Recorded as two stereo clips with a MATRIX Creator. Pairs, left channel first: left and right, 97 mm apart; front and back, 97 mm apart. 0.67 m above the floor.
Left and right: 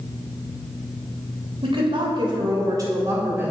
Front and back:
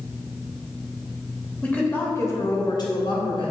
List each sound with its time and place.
1.6 s a woman speaking: 75° right, 3 m; by 3.5 s 20° right, 3 m